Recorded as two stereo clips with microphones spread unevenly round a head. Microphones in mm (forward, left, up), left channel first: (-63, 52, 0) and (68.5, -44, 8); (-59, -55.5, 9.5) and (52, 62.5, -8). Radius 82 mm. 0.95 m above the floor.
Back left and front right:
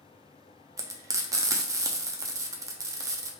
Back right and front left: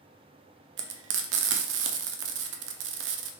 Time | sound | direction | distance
0.8 | frying | 35° left | 0.6 m